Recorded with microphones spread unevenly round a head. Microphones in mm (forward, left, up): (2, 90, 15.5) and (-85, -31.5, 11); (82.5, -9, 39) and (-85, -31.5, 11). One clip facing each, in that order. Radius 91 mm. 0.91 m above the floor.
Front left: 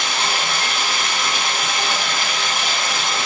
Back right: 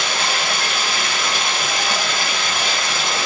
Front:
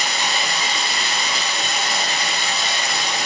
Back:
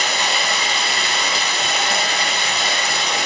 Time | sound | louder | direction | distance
0.0 | running water | back right 1 dB, back 2 dB | 145° right | 2 m